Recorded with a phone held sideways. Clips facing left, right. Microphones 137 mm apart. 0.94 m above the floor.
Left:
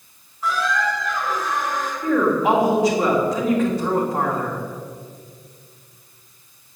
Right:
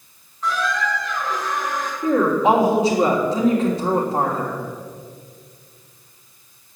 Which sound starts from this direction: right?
A woman speaking, at 2.0 s.